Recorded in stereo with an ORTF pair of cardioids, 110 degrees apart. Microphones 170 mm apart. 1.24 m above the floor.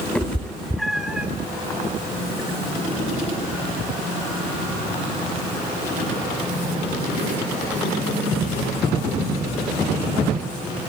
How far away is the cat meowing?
About 2 m.